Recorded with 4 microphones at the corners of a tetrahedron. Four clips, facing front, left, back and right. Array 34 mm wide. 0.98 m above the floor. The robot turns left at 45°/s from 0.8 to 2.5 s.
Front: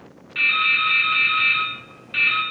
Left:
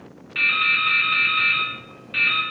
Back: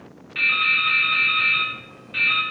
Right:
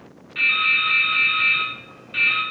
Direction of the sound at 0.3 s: 90° left.